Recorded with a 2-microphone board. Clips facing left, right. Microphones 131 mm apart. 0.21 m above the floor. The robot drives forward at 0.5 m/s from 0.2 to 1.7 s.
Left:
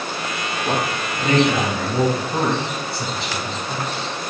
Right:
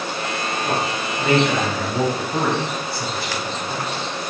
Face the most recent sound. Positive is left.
turn(degrees=25)  # may be behind; listen again after turning